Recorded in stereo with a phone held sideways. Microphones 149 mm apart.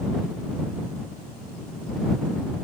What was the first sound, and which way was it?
Only background noise.